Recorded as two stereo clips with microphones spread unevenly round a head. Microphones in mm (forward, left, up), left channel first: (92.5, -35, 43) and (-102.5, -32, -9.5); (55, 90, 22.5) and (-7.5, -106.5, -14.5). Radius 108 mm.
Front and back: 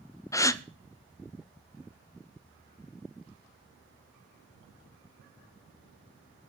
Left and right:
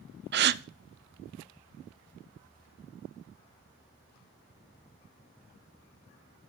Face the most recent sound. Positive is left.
turn(degrees=-70)